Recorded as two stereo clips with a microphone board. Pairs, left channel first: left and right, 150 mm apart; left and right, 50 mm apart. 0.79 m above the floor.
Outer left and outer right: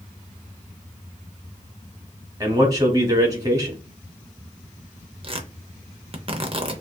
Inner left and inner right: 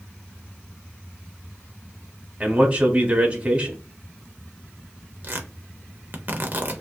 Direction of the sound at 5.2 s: 40° right (ahead or behind).